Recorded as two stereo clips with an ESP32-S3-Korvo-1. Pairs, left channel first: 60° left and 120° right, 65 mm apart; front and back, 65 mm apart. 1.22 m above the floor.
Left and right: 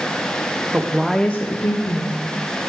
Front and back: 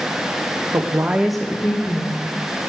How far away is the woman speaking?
About 0.8 m.